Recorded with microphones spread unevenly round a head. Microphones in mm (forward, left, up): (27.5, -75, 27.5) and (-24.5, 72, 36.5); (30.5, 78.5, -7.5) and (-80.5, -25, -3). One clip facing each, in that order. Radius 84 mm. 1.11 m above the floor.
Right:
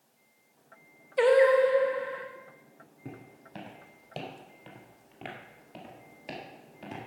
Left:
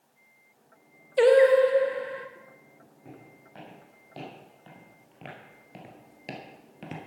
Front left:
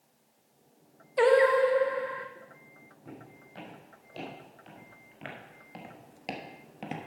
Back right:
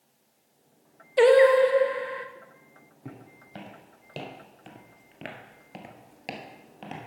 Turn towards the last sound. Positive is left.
turn(degrees=110)